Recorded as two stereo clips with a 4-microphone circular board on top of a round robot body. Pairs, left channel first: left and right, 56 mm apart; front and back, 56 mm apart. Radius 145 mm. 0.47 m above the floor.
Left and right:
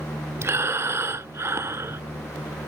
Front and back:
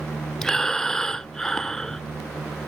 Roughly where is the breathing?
Right.